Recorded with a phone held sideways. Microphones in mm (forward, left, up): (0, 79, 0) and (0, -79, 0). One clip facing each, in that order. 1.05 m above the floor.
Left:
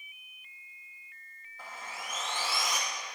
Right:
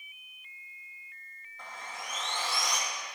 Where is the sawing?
5° left (ahead or behind), 0.6 m.